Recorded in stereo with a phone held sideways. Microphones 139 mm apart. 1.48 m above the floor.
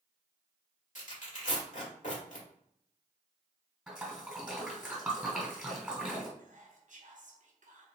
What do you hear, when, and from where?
0.9 s tearing paper: 60° left (ahead or behind), 1.8 m
3.9 s a splash: 5° right (ahead or behind), 2 m
6.4 s whispering: 65° right (ahead or behind), 0.6 m